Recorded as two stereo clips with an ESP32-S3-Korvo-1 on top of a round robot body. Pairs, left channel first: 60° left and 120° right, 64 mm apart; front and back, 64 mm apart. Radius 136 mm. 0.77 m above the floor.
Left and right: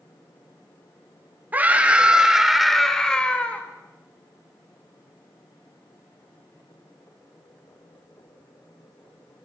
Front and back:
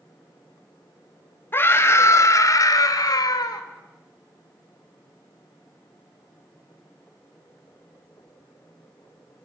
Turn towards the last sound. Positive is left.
turn(degrees=-10)